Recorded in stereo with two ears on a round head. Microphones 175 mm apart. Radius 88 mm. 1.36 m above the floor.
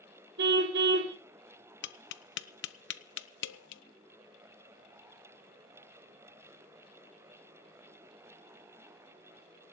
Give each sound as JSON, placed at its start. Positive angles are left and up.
{"t": 0.4, "sound": "a car horn", "side_deg": -60, "distance_m": 2.0}
{"t": 1.8, "sound": "tapping", "side_deg": 65, "distance_m": 0.9}